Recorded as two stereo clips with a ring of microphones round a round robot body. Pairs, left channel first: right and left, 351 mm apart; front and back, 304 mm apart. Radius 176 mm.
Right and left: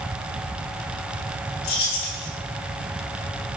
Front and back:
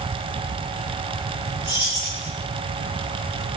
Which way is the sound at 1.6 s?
95° right.